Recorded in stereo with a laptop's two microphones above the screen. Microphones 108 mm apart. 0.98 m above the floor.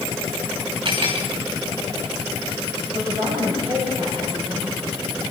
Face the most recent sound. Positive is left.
turn(degrees=-40)  # may be behind; listen again after turning